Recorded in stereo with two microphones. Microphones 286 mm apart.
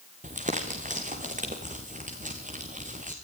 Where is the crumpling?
25° right (ahead or behind), 4 m.